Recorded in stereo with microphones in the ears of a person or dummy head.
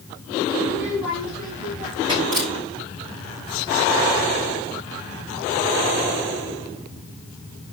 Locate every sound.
0.6 s a child speaking: 5° left (ahead or behind), 2.5 m; by 2.2 s 25° right (ahead or behind), 4 m
2.3 s a camera shutter: 50° right (ahead or behind), 3 m